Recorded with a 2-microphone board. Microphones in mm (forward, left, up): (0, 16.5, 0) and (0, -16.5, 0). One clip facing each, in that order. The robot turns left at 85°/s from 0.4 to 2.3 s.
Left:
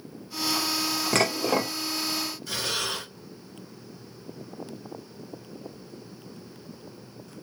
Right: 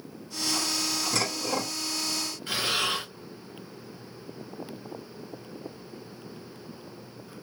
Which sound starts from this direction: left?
Dishes clattering, at 1.1 s.